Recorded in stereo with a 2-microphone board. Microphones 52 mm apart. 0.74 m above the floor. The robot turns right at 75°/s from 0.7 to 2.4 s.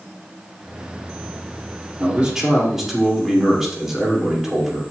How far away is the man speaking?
About 2 m.